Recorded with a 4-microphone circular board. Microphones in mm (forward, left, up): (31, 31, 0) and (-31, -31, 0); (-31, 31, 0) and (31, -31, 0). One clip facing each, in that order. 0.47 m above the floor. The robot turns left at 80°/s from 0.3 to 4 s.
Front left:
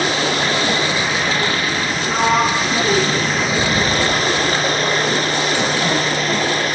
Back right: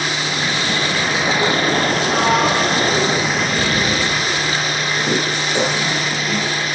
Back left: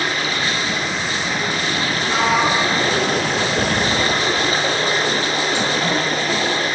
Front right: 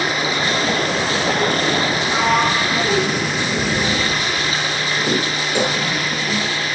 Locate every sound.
0.0 s running water: 25° left, 5.5 m; by 6.8 s 90° left, 5.5 m
2.0 s a sliding door: 80° left, 6 m; by 6.5 s 80° right, 6 m